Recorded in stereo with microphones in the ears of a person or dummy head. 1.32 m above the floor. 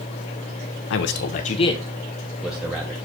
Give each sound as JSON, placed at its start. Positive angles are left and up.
{"t": 0.9, "sound": "a man speaking", "side_deg": 65, "distance_m": 0.7}